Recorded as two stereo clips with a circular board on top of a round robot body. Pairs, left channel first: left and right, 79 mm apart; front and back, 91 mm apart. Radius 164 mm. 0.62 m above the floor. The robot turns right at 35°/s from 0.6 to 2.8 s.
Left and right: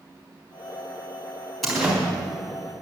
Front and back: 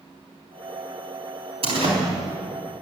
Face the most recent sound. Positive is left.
turn(degrees=-140)